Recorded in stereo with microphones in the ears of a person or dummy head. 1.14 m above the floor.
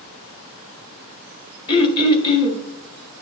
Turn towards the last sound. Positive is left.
turn(degrees=25)  # may be behind; listen again after turning